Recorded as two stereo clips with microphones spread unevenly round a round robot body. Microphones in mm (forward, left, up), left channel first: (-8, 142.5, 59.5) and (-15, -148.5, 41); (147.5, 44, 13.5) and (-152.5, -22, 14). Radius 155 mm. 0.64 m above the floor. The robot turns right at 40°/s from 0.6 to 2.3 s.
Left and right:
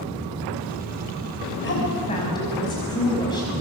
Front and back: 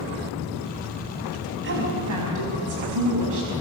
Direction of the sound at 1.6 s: 140° left.